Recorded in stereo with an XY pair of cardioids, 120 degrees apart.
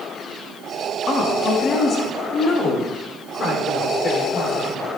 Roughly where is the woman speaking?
Ahead left.